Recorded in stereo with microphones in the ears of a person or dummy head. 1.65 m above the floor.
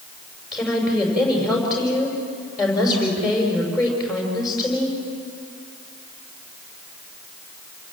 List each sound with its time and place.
0.5 s a woman speaking: centre (ahead or behind), 6 m